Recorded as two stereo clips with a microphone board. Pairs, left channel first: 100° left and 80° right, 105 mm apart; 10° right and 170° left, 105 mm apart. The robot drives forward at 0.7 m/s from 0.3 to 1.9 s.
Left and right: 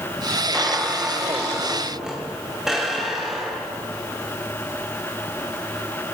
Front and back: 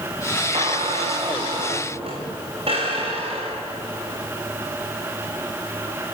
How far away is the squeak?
About 5.5 m.